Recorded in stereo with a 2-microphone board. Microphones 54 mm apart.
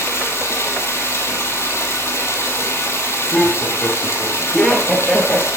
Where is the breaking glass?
No breaking glass in this recording.